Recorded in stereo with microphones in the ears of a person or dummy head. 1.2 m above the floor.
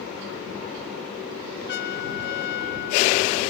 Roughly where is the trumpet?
Left.